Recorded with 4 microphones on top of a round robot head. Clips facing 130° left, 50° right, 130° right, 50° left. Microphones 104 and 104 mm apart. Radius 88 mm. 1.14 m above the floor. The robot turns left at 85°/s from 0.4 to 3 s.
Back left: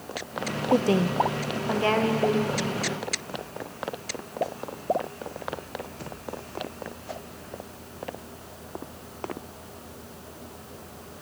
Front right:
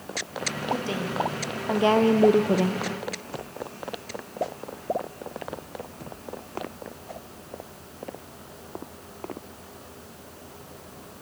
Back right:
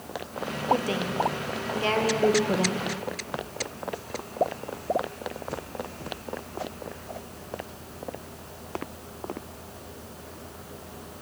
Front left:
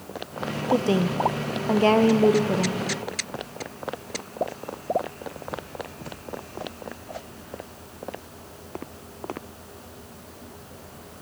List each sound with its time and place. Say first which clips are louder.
0.7 s a woman speaking: back left 7 dB, front left 4 dB; 115° left, 0.8 m; by 2.8 s 65° right, 0.8 m